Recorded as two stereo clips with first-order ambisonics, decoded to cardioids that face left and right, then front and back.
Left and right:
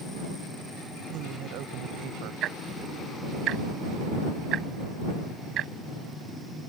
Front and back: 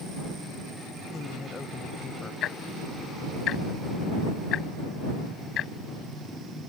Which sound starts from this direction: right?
A woman speaking, at 1.1 s.